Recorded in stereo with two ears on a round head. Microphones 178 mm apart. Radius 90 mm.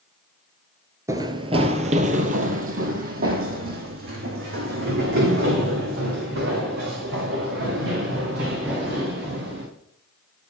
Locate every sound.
1.1 s running footsteps: 15° right (ahead or behind), 1.1 m; by 9.6 s 55° right (ahead or behind), 9 m